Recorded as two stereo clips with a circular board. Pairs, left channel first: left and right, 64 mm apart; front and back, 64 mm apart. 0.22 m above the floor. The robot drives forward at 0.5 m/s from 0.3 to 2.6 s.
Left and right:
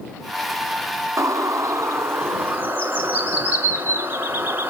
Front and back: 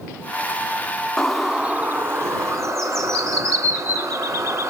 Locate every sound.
1.2 s a bird: 80° right, 0.5 m; by 4.7 s 145° right, 0.8 m